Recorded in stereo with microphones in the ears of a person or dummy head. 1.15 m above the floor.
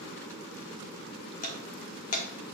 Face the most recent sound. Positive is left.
turn(degrees=40)  # may be behind; listen again after turning